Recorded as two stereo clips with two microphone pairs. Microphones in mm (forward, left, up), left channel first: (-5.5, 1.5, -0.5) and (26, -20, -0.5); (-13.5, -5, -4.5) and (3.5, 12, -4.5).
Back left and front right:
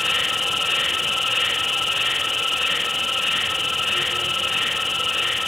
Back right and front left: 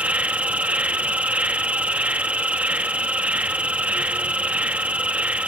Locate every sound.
0.0 s an insect: 50° left